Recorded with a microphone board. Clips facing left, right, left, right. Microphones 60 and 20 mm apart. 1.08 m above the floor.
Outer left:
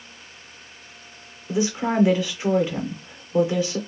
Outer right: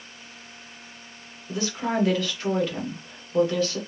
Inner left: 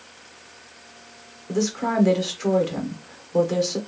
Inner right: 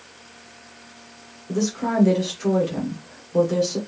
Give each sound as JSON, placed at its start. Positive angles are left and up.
{"t": 1.5, "sound": "a woman speaking", "side_deg": 15, "distance_m": 0.9}